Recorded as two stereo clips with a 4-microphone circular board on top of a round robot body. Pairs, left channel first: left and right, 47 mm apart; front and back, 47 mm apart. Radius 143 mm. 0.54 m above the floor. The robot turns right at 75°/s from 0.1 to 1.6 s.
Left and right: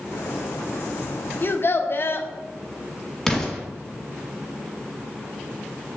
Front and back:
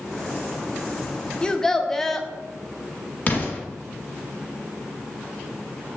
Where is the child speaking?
65° left, 0.6 m; by 2.3 s 80° left, 0.6 m.